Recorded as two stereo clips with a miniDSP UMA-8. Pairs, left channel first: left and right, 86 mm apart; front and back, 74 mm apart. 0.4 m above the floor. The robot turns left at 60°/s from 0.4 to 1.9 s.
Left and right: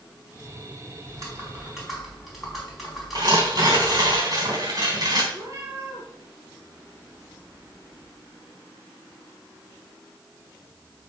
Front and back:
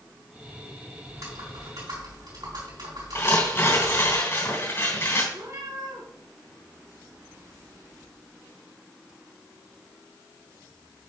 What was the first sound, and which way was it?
Typing on a keyboard, 130° right.